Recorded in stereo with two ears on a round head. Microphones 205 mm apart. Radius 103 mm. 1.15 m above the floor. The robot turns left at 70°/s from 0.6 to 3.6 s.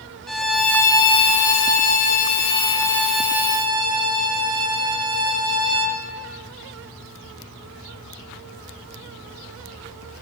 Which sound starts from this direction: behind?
A violin, at 0.3 s.